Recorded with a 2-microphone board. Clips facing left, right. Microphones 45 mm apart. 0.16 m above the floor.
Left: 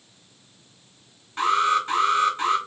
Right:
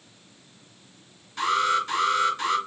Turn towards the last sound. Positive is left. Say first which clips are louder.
# left 2 dB
turn(degrees=30)  # may be behind; listen again after turning